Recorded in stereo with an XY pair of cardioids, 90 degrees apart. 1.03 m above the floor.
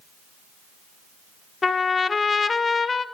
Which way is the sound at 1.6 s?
35° left.